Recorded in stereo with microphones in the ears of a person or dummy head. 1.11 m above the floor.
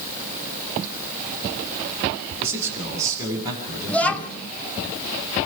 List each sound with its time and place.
2.4 s a man speaking: 15° right (ahead or behind), 8 m; by 4.9 s 30° right (ahead or behind), 6.5 m
3.9 s a child speaking: 5° left (ahead or behind), 1.1 m